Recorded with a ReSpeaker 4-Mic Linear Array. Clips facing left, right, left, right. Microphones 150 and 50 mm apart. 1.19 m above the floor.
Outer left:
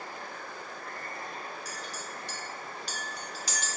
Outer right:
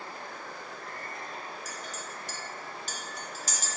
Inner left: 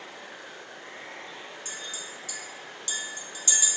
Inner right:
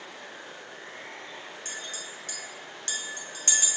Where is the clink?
45° right (ahead or behind), 0.6 m.